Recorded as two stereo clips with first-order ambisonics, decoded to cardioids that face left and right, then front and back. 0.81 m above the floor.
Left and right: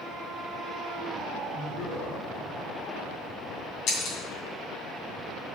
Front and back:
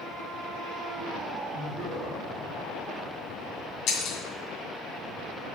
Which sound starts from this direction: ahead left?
Breaking glass, at 3.9 s.